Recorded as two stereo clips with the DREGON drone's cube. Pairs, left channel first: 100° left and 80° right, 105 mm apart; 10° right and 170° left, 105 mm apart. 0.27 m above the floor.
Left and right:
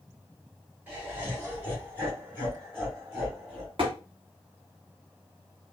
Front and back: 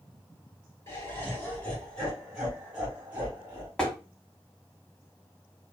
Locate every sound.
0.9 s laughter: 30° right, 1.6 m; by 3.7 s 135° right, 1.9 m
3.8 s tapping: 95° right, 1.1 m